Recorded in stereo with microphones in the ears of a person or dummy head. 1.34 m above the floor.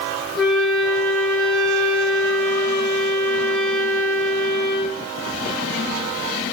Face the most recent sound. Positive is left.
turn(degrees=0)  # may be behind; listen again after turning